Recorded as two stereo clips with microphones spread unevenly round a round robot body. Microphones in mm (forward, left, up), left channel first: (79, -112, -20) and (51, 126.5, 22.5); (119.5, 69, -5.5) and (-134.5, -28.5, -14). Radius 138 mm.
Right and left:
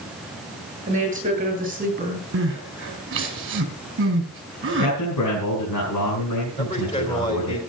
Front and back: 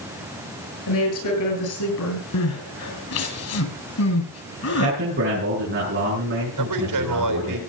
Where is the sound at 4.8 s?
105° right, 6.5 m.